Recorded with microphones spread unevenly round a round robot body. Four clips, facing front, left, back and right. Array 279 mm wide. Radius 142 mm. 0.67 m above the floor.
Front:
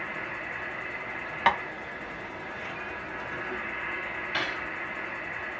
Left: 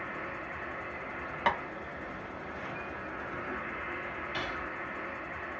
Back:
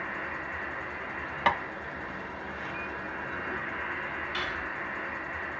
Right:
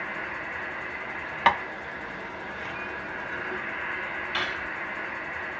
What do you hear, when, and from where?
0.0 s an insect: 165° right, 1.3 m
1.5 s tapping: 100° right, 0.6 m
4.3 s cutlery clinking: 35° right, 1.1 m